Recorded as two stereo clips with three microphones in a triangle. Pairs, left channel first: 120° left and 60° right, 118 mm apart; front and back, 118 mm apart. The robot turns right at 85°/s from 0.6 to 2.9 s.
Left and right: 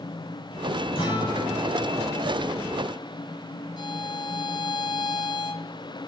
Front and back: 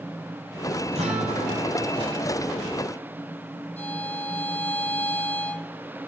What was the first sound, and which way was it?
A guitar, 155° left.